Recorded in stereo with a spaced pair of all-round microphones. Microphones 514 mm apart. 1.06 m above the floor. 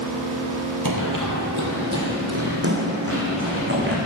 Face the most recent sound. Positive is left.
turn(degrees=-25)  # may be behind; listen again after turning